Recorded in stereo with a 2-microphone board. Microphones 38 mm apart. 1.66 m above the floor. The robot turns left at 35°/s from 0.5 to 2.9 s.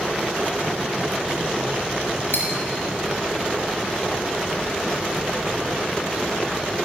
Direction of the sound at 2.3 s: 65° left (ahead or behind).